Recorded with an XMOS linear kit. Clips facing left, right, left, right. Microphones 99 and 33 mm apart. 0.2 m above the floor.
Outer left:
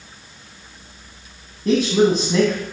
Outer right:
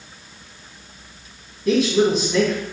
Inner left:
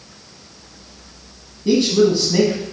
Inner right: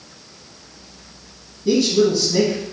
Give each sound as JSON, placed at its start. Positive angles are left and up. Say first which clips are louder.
{"t": 1.6, "sound": "a man speaking", "louder": "outer left 1 dB, inner left 1 dB", "side_deg": 35, "distance_m": 1.4}